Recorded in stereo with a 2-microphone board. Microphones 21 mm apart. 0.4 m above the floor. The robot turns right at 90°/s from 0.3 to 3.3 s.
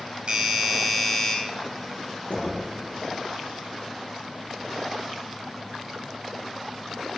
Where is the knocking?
80° left, 4 m; by 2.6 s 50° left (ahead or behind), 4 m.